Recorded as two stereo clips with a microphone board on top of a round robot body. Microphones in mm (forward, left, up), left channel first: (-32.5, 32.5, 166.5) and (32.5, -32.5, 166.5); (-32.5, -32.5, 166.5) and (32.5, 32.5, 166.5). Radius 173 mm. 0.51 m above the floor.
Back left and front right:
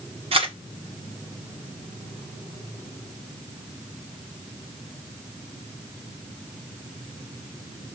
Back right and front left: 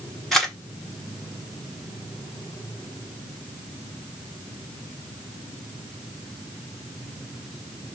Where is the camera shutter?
50° right, 1.4 m.